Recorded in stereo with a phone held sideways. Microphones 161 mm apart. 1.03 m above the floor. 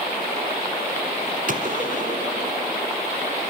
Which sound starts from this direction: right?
A gunshot, at 1.5 s.